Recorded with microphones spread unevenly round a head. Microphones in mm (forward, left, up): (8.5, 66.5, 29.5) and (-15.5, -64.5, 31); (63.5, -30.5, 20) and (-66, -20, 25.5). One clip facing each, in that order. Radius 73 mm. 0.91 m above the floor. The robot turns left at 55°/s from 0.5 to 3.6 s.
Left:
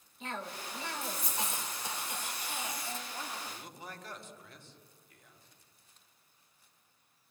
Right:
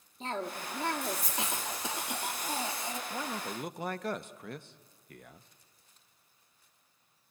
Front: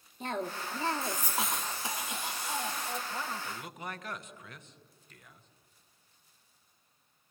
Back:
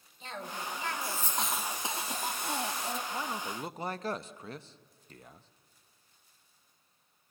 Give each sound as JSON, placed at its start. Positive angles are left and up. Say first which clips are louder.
{"t": 0.2, "sound": "a cough", "louder": "right 5 dB, front 5 dB", "azimuth_deg": -40, "distance_m": 2.0}
{"t": 3.1, "sound": "a man speaking", "louder": "right 6 dB, back 2 dB", "azimuth_deg": -100, "distance_m": 0.8}